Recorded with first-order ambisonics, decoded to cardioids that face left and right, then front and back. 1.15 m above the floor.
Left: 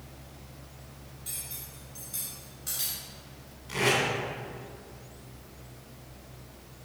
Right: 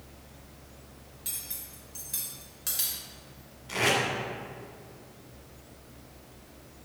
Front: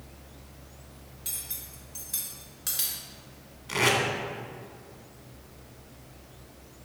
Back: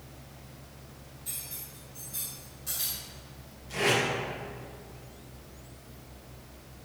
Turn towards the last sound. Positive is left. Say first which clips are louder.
# even, front 2 dB
turn(degrees=-15)